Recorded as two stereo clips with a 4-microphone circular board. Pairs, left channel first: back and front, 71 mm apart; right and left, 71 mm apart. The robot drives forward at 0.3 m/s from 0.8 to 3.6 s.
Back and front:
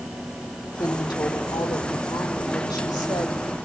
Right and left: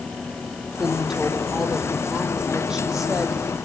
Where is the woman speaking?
170° left, 5.5 m.